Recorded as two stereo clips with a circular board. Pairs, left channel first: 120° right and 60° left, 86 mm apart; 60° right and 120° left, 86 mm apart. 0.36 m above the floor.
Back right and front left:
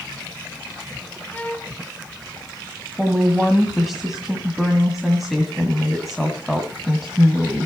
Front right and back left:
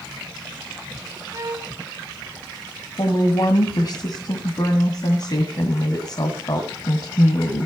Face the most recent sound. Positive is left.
turn(degrees=-30)